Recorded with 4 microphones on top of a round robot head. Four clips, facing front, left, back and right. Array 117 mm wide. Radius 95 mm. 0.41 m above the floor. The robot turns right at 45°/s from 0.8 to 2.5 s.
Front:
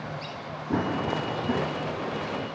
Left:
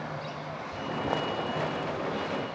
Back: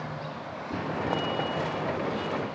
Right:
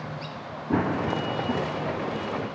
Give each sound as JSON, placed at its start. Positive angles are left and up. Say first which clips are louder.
{"t": 0.7, "sound": "running footsteps", "louder": "right 7 dB, front 3 dB", "azimuth_deg": -65}